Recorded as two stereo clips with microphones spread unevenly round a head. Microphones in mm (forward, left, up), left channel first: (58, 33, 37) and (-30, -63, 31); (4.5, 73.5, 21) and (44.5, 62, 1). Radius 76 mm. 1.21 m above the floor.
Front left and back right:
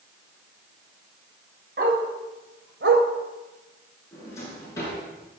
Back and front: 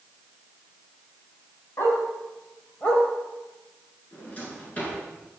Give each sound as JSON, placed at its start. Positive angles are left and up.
{"t": 1.8, "sound": "a dog barking", "azimuth_deg": -170, "distance_m": 3.0}
{"t": 4.1, "sound": "a drawer", "azimuth_deg": 120, "distance_m": 8.5}